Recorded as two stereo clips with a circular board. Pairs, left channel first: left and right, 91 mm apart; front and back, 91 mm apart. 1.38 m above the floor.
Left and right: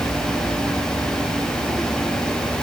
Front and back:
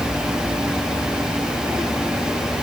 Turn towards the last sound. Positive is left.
No sound to turn to.